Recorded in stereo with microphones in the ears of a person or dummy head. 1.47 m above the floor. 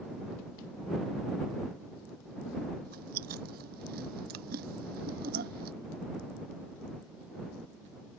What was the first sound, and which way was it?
Chewing, 60° right (ahead or behind).